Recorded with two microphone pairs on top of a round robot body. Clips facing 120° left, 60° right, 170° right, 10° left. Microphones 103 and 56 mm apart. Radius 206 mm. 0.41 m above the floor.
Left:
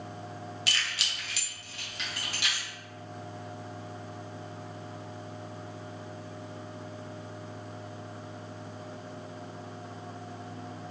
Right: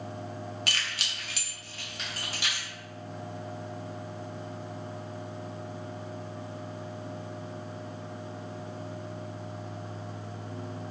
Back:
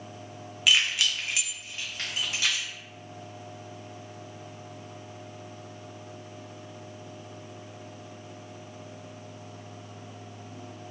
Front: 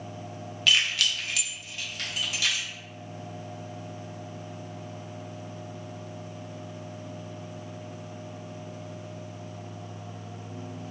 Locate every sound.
0.7 s keys jangling: 90° right, 0.8 m; by 2.7 s 115° right, 1.7 m